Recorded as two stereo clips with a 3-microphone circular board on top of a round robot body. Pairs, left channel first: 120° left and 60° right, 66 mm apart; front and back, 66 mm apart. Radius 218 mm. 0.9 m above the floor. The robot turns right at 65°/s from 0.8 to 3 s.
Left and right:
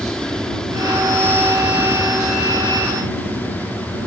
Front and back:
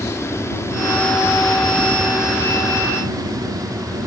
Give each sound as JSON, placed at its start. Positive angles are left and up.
{"t": 0.0, "sound": "an aircraft", "azimuth_deg": 40}